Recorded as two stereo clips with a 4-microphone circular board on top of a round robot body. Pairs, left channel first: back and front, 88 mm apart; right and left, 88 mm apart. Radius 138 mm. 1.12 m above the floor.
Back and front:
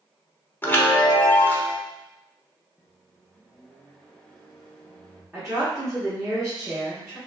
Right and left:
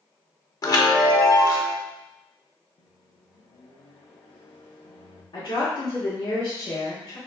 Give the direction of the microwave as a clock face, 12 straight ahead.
3 o'clock.